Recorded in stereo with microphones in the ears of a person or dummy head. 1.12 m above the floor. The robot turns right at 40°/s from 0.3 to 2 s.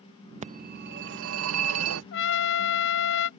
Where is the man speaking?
I don't hear a man speaking.